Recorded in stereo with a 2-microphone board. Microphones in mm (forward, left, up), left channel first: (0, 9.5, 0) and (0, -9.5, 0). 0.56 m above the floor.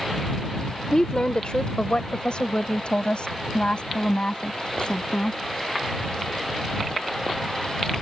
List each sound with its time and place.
0.9 s a woman speaking: 50° left (ahead or behind); by 5.4 s 65° left (ahead or behind)